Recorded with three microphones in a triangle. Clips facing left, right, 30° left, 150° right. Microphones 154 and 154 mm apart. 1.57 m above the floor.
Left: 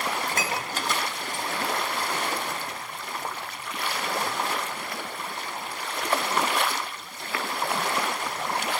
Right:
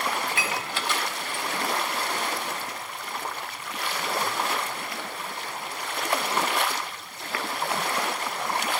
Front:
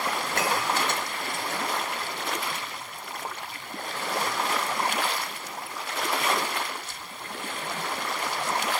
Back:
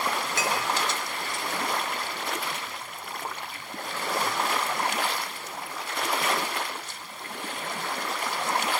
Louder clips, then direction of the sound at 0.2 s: Left 1 dB, front 1 dB; 50° left.